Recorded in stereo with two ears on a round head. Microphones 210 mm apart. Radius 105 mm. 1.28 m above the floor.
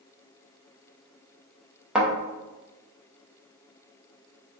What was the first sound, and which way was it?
A thud, 5° right (ahead or behind).